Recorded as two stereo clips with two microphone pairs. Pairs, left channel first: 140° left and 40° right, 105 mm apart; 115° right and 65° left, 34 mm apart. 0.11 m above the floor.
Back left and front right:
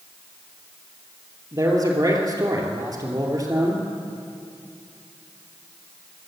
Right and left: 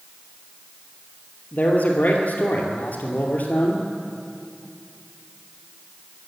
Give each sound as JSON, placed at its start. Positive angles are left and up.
{"t": 1.5, "sound": "a man speaking", "azimuth_deg": -85, "distance_m": 2.5}